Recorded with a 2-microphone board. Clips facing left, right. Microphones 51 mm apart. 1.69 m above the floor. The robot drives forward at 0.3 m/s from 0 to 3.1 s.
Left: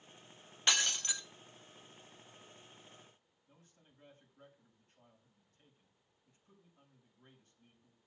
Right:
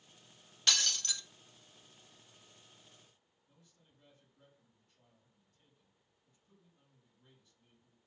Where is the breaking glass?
20° left (ahead or behind), 0.8 m.